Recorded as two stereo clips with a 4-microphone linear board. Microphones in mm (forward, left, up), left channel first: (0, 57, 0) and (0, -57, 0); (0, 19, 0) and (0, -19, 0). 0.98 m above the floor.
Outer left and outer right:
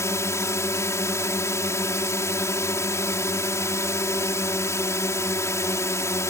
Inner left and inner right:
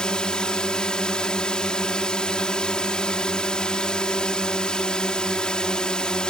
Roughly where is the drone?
Left.